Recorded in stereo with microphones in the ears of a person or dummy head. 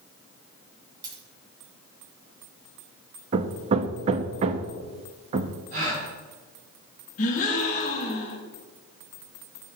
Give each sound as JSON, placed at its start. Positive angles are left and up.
{"t": 1.0, "sound": "a dropped coin", "side_deg": -25, "distance_m": 2.5}
{"t": 3.3, "sound": "hammering", "side_deg": -35, "distance_m": 0.6}
{"t": 5.7, "sound": "a gasp", "side_deg": -40, "distance_m": 5.0}
{"t": 7.2, "sound": "a gasp", "side_deg": 45, "distance_m": 2.5}